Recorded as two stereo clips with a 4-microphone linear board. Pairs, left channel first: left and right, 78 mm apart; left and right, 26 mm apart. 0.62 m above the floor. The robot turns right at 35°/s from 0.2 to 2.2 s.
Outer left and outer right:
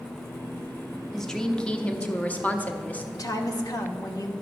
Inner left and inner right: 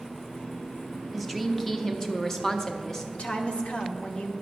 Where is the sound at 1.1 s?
5° left (ahead or behind), 0.7 m; by 3.0 s 20° left (ahead or behind), 0.7 m.